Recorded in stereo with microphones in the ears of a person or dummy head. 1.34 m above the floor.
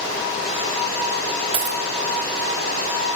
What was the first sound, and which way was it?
A dropped coin, 45° right (ahead or behind).